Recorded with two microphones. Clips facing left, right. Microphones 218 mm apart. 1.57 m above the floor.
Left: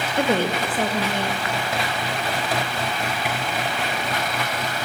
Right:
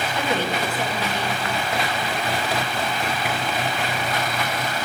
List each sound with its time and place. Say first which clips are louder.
0.2 s a woman speaking: left 4 dB; 50° left (ahead or behind), 1.5 m